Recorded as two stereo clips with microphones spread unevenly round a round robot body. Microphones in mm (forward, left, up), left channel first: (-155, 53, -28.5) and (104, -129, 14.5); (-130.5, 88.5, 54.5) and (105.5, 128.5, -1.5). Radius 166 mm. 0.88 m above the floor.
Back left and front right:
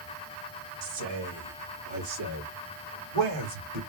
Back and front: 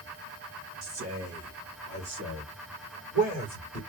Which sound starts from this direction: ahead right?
A man speaking, at 0.8 s.